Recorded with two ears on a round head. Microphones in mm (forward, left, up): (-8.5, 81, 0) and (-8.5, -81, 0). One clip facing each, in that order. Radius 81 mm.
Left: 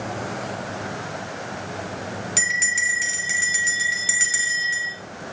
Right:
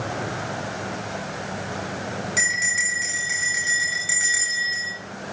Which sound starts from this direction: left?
A bell, at 2.4 s.